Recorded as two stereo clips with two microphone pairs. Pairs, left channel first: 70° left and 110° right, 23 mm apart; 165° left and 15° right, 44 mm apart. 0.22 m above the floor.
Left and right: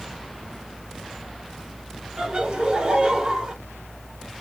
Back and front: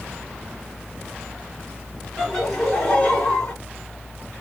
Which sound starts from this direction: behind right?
Laughter, at 2.2 s.